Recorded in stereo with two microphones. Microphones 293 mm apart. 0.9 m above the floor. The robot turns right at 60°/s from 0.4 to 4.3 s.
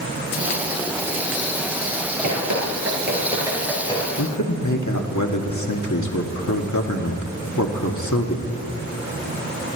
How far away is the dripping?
About 3.5 m.